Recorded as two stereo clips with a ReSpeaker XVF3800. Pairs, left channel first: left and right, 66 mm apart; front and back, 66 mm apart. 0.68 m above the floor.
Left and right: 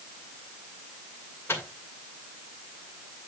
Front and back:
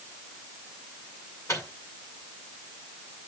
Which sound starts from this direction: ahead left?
A microwave, at 1.5 s.